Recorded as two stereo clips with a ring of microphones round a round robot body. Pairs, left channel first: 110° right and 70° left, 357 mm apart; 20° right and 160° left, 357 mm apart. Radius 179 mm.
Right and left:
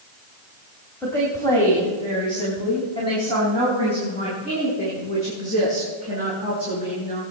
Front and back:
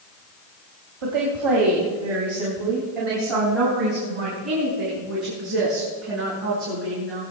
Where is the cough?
No cough in this recording.